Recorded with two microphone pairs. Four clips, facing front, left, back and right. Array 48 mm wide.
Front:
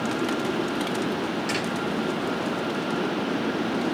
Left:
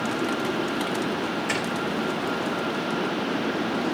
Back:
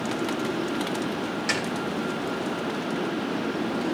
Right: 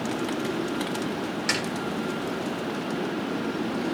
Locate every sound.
1.5 s a snare drum: 115° right, 8 m